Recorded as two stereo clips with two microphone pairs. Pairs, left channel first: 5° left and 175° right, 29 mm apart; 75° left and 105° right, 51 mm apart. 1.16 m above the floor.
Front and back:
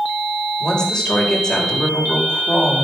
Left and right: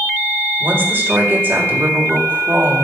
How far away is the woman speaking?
About 5 m.